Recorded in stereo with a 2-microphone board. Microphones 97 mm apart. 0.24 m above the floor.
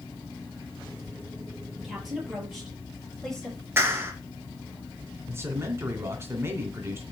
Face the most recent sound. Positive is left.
turn(degrees=-25)  # may be behind; listen again after turning